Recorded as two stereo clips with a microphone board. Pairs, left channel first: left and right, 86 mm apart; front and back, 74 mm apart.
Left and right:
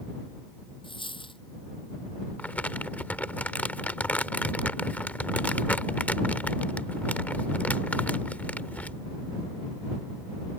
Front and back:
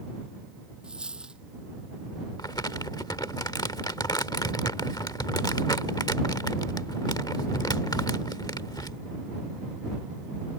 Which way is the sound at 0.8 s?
100° left.